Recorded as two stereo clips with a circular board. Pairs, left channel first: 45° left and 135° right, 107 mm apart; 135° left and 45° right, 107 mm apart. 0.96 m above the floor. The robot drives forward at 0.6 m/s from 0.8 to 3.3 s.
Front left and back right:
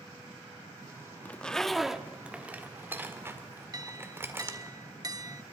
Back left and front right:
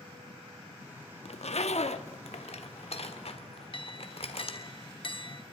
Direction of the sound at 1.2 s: 120° left.